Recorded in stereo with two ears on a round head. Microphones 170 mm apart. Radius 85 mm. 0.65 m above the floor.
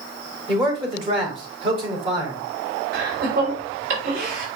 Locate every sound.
0.5 s a man speaking: 30° right (ahead or behind), 3.5 m
2.9 s laughter: 60° right (ahead or behind), 3 m